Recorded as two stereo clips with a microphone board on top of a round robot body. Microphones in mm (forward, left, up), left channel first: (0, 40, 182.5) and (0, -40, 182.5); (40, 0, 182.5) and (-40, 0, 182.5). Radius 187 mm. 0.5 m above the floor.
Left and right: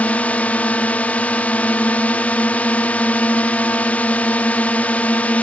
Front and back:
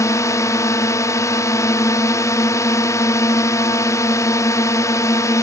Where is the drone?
25° left.